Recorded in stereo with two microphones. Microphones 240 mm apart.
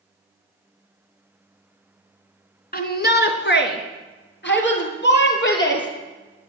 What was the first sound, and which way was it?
A shout, 40° left (ahead or behind).